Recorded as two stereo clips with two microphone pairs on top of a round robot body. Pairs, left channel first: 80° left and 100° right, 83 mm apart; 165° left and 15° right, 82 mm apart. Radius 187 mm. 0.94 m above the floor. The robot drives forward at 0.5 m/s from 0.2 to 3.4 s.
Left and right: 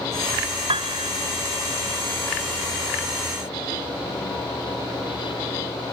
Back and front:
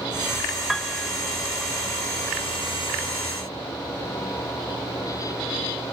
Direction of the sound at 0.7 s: 105° right.